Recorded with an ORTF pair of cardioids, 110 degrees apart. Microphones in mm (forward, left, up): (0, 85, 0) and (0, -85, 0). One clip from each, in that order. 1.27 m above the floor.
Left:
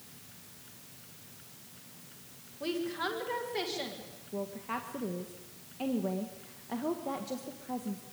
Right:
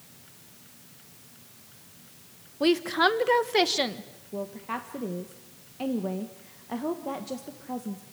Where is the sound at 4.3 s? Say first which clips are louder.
Right 3 dB; 15° right, 1.5 m.